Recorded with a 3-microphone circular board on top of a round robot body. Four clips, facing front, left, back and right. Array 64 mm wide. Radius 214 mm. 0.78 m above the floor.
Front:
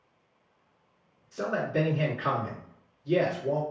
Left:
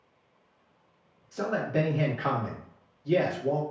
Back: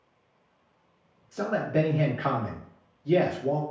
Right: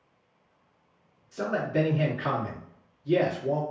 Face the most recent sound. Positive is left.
turn(degrees=150)